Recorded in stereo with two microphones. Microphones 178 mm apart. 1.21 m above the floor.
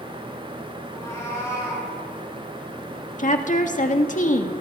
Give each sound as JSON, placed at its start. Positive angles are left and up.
{"t": 0.9, "sound": "a cat meowing", "side_deg": 15, "distance_m": 9.0}
{"t": 3.2, "sound": "a woman speaking", "side_deg": 45, "distance_m": 1.8}